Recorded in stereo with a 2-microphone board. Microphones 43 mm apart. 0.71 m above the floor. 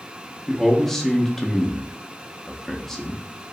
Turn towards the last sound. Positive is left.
turn(degrees=5)  # may be behind; listen again after turning